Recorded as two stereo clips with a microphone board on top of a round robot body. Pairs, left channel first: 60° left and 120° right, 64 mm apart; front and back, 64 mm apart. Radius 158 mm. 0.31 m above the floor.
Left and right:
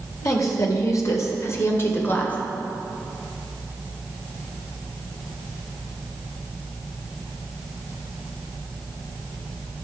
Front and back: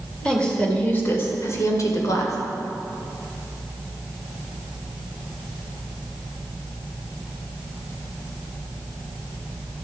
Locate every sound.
0.2 s a woman speaking: 75° left, 2.5 m; by 2.4 s straight ahead, 2.5 m